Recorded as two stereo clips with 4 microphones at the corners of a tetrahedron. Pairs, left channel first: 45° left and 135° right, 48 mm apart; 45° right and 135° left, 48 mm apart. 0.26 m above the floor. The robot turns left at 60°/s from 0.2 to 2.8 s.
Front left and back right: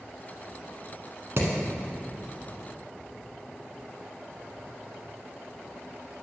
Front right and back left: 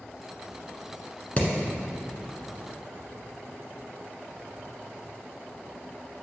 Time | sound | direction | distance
1.4 | hammering | 105° right | 1.4 m